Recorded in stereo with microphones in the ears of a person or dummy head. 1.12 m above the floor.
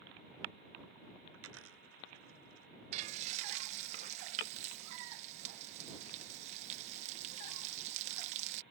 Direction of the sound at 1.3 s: 85° right.